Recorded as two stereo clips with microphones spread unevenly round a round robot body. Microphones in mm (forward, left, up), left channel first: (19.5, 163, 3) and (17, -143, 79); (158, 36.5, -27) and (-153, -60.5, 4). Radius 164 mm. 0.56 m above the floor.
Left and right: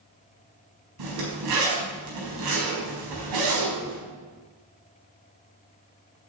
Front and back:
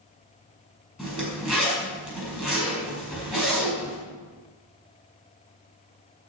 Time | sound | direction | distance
1.0 | a zipper | 75° right | 4.5 m